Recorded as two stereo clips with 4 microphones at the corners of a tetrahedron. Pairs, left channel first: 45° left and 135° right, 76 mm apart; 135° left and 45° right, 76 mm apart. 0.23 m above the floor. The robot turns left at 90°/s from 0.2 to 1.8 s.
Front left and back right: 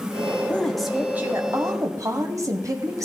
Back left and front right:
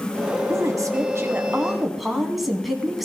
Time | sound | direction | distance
0.5 | a woman speaking | 15° right | 1.4 m